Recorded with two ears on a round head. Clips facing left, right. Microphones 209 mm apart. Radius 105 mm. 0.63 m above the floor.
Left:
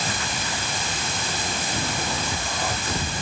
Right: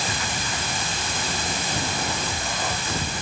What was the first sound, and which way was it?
Only background noise.